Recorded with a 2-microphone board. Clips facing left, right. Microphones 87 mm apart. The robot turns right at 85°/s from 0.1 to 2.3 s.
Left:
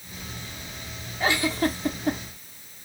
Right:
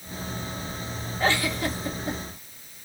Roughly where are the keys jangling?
I don't hear keys jangling.